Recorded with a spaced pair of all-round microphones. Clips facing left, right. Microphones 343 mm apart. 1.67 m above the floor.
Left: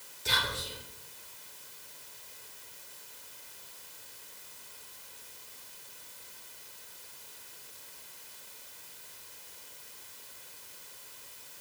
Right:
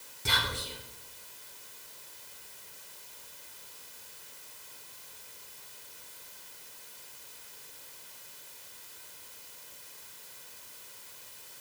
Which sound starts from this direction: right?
Whispering, at 0.2 s.